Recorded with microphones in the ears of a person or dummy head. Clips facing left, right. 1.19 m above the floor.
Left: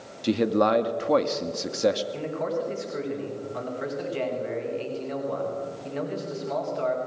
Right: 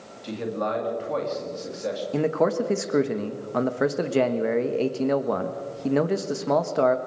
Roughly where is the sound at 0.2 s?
Left.